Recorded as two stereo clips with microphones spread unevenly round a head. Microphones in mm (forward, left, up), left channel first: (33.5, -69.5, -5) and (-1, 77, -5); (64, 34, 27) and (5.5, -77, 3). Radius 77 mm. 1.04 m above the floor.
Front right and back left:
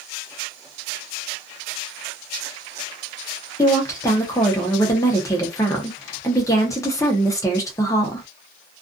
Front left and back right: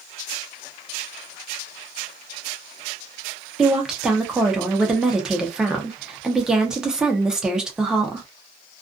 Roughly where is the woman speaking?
Right.